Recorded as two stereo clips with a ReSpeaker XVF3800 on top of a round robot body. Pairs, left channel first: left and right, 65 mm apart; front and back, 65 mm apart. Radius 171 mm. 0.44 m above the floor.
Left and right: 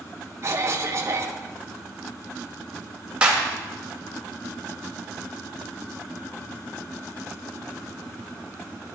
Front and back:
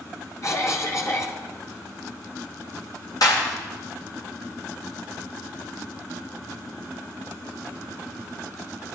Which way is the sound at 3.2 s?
15° right.